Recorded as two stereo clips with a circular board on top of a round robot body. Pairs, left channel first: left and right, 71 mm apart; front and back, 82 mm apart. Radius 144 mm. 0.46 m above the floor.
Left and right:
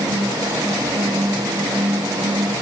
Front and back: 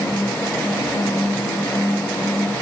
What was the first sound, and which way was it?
Only background noise.